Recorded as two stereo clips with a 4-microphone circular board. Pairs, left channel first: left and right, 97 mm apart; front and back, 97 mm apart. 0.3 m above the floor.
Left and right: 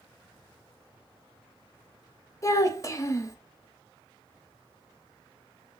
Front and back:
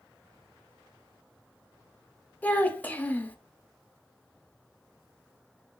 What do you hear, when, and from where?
2.4 s a child speaking: 60° left, 0.6 m